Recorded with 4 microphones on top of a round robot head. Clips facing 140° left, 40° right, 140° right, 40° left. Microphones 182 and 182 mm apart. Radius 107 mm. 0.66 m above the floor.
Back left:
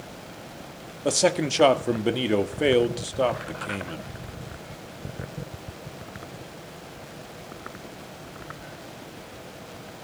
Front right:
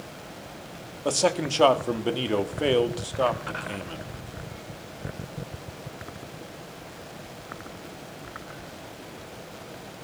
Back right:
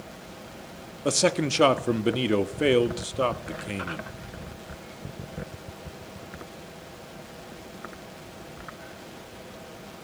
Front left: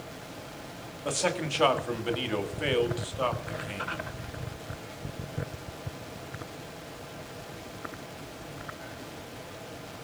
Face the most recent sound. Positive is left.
turn(degrees=-150)